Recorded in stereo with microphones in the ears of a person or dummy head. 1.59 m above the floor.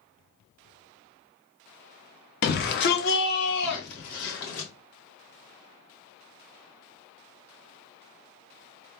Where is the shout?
55° left (ahead or behind), 1.0 m; by 4.7 s 60° left (ahead or behind), 2.5 m.